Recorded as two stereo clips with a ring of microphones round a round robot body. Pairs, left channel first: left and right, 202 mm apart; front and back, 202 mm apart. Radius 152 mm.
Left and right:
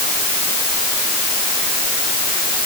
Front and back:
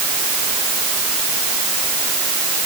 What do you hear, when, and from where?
Only background noise.